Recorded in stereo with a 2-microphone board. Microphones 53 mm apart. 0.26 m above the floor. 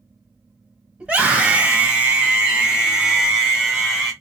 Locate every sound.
1.0 s a scream: 25° right (ahead or behind), 1.5 m; by 4.1 s 5° right (ahead or behind), 1.5 m